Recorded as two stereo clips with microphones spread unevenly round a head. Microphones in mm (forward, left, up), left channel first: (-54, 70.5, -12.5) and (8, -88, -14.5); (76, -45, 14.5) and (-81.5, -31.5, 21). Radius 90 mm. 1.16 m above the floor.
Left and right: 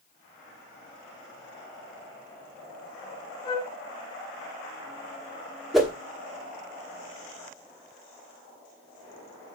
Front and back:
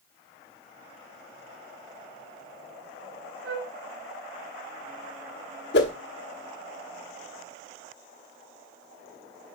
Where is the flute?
Straight behind, 2.5 m.